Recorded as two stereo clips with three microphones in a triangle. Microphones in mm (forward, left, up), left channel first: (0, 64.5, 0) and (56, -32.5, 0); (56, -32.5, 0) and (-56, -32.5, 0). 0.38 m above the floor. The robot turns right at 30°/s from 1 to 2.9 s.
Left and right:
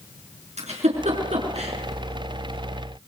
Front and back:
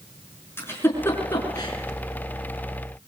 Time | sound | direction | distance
0.6 | a giggle | 70° right | 6.5 m